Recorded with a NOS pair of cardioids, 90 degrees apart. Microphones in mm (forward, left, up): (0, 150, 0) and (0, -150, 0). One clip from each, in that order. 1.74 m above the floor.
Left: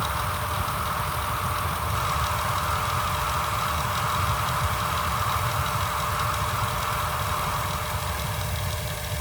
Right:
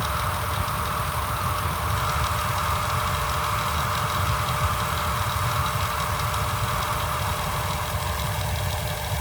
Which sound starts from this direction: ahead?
A fan, at 0.0 s.